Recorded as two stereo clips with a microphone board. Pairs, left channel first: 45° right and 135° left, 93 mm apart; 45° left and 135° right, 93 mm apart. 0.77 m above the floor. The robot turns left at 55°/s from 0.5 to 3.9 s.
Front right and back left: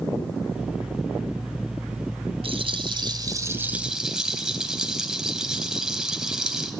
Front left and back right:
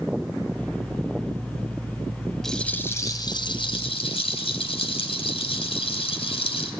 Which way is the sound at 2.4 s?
130° left.